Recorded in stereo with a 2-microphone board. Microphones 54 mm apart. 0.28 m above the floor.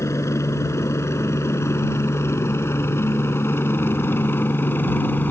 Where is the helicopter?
60° left (ahead or behind); by 5.3 s 35° left (ahead or behind).